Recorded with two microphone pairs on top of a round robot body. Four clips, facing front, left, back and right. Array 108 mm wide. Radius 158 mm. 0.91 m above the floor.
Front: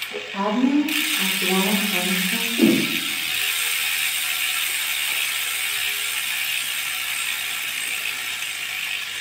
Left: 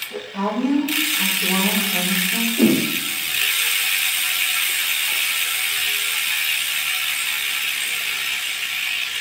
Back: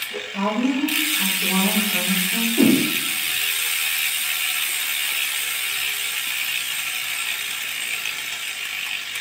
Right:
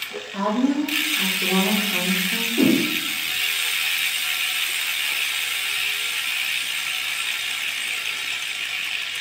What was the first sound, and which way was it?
A woman speaking, 50° right.